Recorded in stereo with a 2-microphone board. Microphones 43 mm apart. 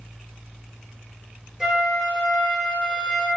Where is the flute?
10° right (ahead or behind), 1.3 m.